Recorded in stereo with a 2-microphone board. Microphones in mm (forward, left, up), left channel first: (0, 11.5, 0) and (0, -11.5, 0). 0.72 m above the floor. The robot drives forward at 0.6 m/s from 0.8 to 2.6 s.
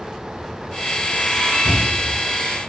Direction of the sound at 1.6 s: 5° left (ahead or behind).